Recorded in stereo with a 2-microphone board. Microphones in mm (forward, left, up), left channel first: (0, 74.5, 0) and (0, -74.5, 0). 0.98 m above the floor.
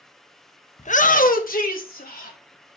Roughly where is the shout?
Left.